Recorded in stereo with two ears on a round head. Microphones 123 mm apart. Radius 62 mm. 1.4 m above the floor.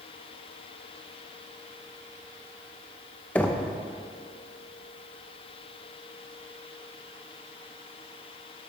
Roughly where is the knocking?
Centre.